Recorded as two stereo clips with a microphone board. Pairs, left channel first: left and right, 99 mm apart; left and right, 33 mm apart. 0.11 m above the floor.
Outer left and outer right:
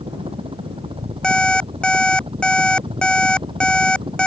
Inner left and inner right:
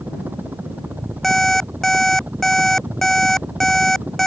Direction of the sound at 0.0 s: 70° right (ahead or behind).